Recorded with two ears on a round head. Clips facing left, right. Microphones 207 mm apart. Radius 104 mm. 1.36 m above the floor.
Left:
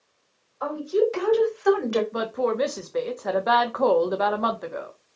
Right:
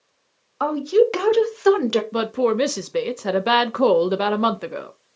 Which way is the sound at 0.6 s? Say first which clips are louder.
Right 5 dB; 80° right.